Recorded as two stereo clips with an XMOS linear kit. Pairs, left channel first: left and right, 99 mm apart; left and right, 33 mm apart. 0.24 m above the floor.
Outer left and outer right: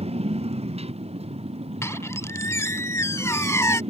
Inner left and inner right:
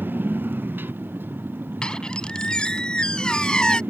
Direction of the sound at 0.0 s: 85° right.